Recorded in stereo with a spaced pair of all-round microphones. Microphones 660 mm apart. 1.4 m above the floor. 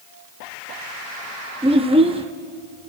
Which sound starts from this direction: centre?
A child speaking, at 1.6 s.